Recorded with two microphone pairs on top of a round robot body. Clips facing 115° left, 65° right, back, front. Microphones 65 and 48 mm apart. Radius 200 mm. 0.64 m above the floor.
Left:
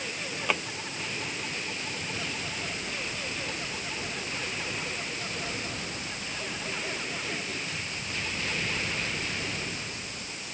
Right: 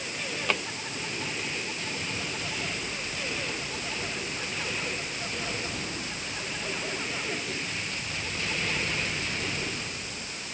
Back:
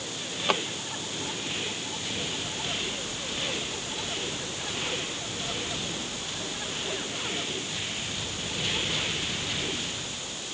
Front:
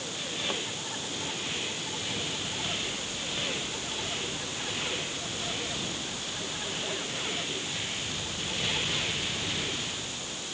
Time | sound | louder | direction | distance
0.5 | a drawer | even, back 9 dB | 160° right | ?